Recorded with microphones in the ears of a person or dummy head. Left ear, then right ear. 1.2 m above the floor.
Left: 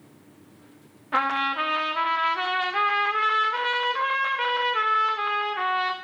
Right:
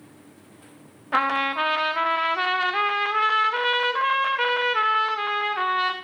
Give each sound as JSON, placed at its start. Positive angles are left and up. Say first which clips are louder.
{"t": 1.1, "sound": "a trumpet", "louder": "right 1 dB", "side_deg": -10, "distance_m": 0.6}